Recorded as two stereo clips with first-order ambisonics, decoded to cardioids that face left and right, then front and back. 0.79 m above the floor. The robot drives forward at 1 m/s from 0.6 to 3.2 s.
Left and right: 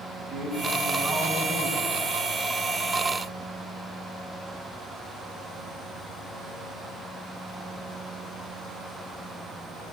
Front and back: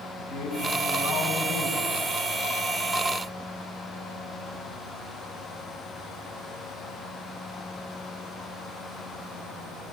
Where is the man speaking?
15° left, 8 m.